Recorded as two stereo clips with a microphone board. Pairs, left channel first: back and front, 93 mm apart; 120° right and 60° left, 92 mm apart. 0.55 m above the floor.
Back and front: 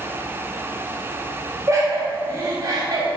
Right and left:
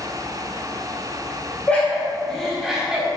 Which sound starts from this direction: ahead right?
Laughter, at 1.7 s.